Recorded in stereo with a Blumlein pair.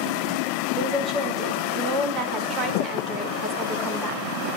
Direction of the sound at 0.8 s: 25° right.